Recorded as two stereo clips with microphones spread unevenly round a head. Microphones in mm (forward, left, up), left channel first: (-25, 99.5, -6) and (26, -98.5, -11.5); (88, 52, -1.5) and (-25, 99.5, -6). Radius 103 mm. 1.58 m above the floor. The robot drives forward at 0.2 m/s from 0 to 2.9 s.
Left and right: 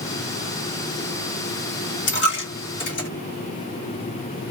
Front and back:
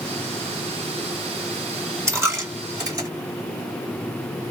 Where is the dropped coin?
95° left, 1.5 m; by 3.1 s 100° left, 1.5 m.